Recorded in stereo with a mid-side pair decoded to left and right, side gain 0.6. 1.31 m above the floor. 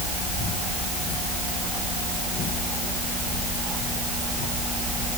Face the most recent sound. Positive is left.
No sound to turn to.